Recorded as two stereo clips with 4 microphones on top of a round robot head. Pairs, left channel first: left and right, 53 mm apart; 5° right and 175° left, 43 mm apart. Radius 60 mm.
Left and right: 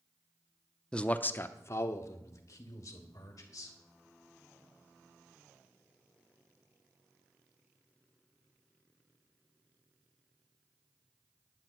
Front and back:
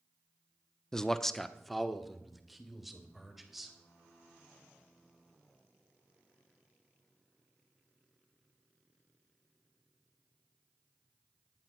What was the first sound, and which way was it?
A man speaking, 45° left.